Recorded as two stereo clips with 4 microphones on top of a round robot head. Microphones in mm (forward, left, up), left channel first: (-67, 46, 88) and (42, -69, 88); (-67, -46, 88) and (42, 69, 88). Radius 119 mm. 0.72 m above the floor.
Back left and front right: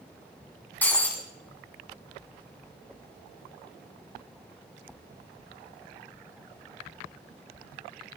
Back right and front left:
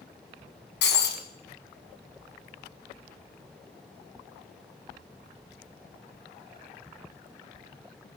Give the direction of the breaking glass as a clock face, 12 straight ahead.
5 o'clock.